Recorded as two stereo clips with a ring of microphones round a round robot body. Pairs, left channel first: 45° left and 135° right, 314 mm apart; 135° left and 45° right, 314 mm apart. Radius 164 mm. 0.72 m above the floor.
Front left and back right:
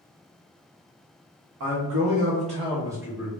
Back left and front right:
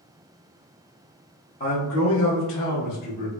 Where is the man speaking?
160° right, 0.8 m; by 3.3 s 135° left, 1.3 m.